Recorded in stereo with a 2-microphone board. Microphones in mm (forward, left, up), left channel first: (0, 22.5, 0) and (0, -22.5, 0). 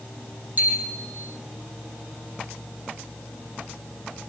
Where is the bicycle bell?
40° right (ahead or behind), 7.5 m.